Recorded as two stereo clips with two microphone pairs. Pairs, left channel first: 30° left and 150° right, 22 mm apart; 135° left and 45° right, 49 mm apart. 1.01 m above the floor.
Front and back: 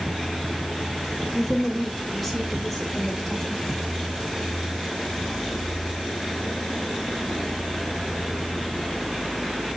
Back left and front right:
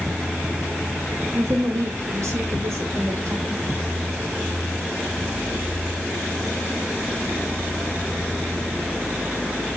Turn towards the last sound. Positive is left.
turn(degrees=-50)